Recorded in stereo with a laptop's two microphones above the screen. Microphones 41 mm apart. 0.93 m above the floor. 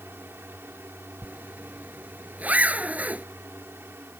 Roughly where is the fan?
Right.